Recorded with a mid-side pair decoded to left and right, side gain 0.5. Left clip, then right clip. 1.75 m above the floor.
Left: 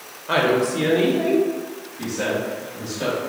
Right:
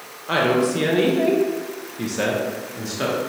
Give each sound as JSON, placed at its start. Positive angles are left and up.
{"t": 0.3, "sound": "a woman speaking", "azimuth_deg": 0, "distance_m": 1.1}